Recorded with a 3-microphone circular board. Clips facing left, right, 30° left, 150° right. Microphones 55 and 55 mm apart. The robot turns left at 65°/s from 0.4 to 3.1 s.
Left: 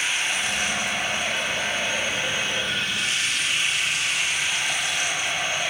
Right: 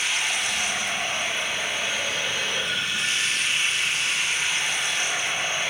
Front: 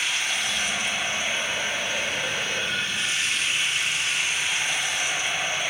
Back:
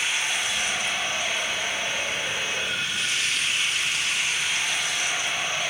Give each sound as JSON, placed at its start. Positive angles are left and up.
{"t": 0.0, "sound": "running water", "azimuth_deg": 145, "distance_m": 8.0}